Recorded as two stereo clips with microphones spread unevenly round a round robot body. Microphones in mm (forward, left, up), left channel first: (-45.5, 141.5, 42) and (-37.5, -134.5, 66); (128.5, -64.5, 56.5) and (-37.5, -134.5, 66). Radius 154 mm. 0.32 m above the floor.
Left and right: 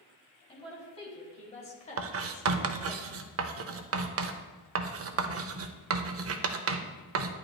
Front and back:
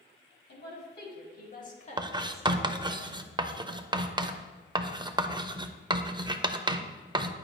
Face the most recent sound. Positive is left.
turn(degrees=-95)